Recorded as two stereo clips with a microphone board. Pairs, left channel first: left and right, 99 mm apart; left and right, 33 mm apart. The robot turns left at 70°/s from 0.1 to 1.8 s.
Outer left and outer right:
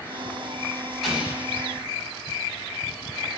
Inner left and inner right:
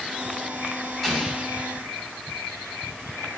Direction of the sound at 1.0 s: Straight ahead.